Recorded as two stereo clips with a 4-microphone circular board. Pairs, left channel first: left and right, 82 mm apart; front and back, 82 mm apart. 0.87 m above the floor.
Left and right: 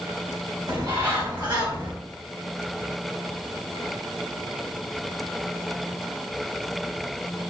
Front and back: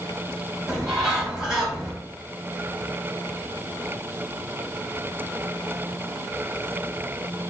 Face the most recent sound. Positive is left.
turn(degrees=-95)